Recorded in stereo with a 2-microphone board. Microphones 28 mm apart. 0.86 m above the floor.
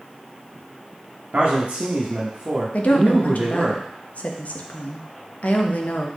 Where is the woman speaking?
60° left (ahead or behind), 0.6 m.